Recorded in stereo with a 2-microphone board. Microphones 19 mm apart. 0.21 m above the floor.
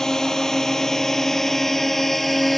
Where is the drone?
30° left (ahead or behind); by 2.6 s 10° left (ahead or behind).